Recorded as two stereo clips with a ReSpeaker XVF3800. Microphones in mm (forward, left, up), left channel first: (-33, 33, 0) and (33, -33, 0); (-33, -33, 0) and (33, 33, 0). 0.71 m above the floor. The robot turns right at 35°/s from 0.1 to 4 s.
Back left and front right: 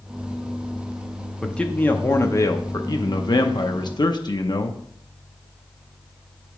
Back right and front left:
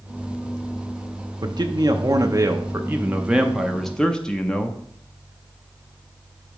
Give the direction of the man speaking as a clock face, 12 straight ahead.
10 o'clock.